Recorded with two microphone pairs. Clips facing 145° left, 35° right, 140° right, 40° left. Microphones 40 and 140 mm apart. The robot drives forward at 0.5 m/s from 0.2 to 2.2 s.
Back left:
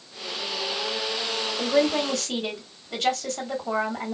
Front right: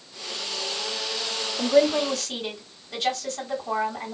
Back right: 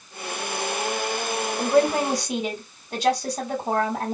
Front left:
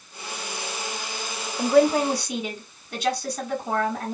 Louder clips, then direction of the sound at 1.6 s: Front right 3 dB, front left 2 dB; 175° left.